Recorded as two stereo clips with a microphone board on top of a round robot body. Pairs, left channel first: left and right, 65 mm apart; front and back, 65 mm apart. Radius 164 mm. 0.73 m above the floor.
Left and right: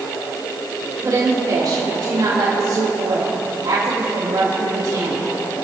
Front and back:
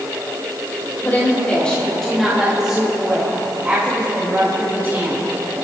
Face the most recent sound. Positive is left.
turn(degrees=-120)